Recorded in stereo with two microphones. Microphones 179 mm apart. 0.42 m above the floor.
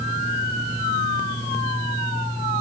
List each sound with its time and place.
Only background noise.